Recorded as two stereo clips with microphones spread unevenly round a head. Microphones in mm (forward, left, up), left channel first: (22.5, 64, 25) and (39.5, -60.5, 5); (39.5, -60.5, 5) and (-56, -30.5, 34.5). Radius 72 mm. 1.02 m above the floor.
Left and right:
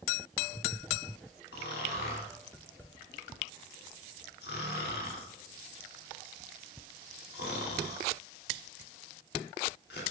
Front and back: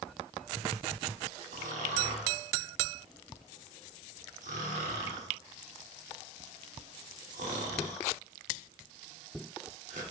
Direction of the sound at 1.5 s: 120° left.